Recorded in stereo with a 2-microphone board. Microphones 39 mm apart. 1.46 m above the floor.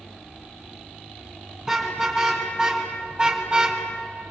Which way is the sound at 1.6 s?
15° right (ahead or behind).